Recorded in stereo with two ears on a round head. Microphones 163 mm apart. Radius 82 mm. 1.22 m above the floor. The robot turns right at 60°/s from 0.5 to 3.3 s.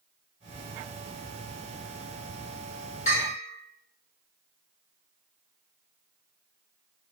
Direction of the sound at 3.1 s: 40° left (ahead or behind).